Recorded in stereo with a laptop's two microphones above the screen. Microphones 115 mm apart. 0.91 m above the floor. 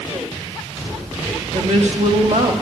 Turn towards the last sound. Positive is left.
turn(degrees=-70)  # may be behind; listen again after turning